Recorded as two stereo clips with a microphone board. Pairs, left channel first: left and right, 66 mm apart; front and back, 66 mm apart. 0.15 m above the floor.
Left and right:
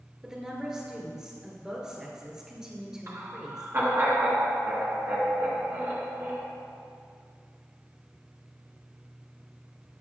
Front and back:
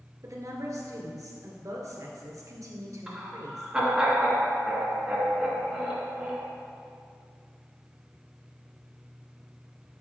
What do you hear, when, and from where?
0.2 s a woman speaking: 165° right, 1.9 m
3.1 s laughter: 105° right, 2 m